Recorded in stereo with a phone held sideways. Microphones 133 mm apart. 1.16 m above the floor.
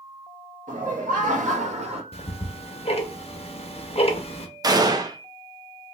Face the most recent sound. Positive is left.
turn(degrees=-30)  # may be behind; listen again after turning